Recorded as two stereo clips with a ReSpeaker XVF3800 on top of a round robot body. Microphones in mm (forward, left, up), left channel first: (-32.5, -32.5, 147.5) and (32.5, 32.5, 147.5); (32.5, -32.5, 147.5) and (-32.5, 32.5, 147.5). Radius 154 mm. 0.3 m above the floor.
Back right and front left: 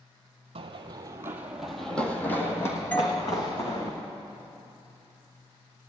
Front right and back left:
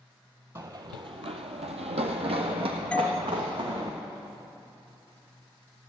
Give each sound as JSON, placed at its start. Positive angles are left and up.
{"t": 0.6, "sound": "running footsteps", "azimuth_deg": 75, "distance_m": 1.0}
{"t": 2.9, "sound": "a doorbell", "azimuth_deg": -105, "distance_m": 1.3}